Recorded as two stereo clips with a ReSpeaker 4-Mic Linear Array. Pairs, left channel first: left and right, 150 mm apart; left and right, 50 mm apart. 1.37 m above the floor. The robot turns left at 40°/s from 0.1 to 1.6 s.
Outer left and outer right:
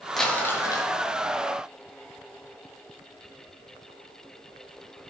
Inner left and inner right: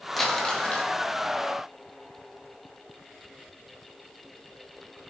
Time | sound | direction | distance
0.2 | crumpling | straight behind | 1.6 m